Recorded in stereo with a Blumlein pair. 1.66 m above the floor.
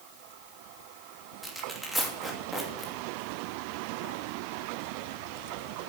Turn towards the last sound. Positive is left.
turn(degrees=0)